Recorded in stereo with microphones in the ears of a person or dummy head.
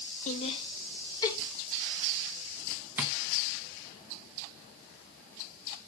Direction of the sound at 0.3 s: 40° left (ahead or behind).